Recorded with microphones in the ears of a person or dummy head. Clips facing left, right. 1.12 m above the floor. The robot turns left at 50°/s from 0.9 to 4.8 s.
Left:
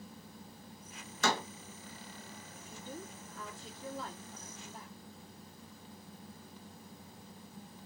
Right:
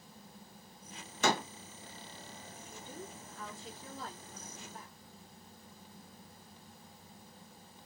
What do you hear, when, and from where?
1.2 s a door slam: 15° right (ahead or behind), 0.6 m; by 1.5 s centre (ahead or behind), 0.6 m
2.5 s a woman speaking: 140° left, 1.0 m; by 4.9 s 30° left, 1.0 m